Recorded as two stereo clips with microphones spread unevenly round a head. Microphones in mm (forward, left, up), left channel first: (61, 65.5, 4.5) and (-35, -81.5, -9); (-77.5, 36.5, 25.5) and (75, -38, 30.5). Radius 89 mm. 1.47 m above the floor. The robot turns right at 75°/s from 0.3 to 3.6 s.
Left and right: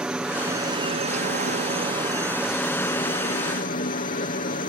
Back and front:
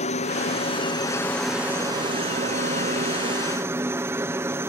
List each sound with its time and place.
0.0 s a helicopter: 155° left; by 4.7 s 45° left